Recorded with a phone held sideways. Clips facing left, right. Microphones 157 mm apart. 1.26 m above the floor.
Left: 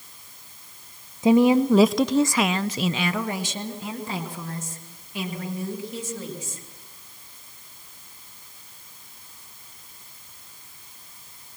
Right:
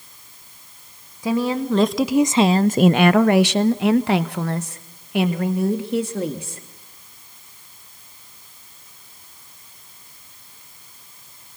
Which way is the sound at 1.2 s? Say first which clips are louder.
Left 5 dB; 25° left (ahead or behind).